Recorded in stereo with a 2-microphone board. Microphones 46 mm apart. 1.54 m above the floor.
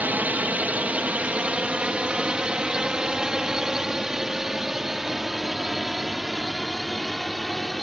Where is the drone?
40° right (ahead or behind); by 7.8 s centre (ahead or behind).